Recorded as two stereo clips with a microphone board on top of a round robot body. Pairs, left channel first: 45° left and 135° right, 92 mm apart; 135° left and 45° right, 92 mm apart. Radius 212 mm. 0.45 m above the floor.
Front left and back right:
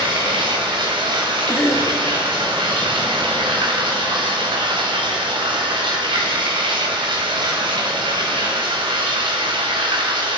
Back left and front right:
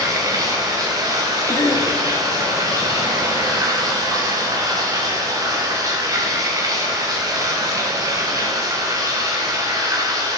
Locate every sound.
0.0 s running water: 100° right, 1.2 m
1.5 s a cough: 90° left, 2 m